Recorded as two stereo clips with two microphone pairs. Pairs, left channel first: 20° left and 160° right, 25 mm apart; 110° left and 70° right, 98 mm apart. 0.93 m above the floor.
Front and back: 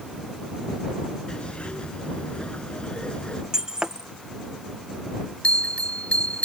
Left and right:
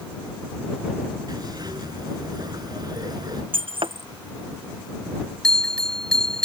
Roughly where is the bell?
Ahead left.